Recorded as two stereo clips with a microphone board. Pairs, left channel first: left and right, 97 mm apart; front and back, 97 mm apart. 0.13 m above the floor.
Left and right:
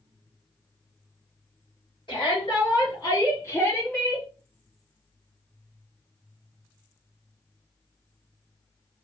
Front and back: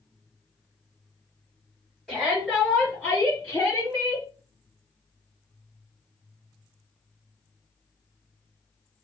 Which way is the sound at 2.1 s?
90° left.